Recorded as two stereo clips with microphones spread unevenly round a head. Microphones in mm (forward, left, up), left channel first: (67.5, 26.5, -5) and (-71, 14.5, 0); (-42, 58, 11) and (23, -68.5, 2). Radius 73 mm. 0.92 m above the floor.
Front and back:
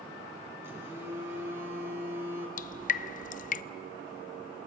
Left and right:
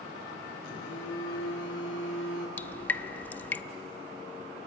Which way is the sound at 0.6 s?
110° left.